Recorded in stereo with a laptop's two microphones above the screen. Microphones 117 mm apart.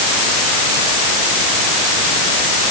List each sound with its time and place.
Only background noise.